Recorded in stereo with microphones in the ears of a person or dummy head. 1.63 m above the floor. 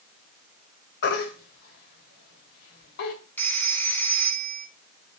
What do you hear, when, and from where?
1.0 s a baby crying: 55° left (ahead or behind), 3 m
3.4 s a phone ringing: 5° left (ahead or behind), 1.3 m